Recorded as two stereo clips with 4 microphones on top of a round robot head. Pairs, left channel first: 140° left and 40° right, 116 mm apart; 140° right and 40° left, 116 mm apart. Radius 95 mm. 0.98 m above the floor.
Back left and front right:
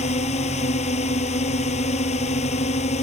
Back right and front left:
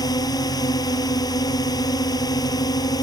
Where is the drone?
165° left.